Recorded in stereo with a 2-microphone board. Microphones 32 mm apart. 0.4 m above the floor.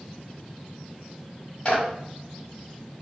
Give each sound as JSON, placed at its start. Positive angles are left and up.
{"t": 1.6, "sound": "a clap", "side_deg": 30, "distance_m": 1.9}